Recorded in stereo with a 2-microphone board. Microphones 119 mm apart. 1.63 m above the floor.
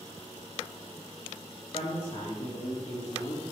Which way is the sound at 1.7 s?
60° left (ahead or behind).